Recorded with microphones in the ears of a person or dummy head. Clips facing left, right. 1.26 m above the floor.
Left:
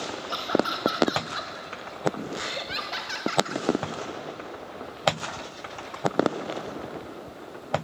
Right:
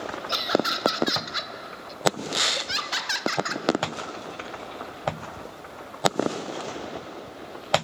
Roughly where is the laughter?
Right.